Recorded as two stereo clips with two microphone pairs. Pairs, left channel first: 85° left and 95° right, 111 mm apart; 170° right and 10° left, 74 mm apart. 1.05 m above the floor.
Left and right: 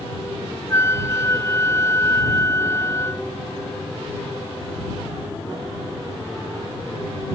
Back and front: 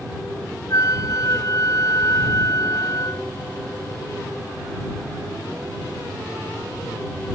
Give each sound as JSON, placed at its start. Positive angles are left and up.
{"t": 0.7, "sound": "a flute", "azimuth_deg": 150}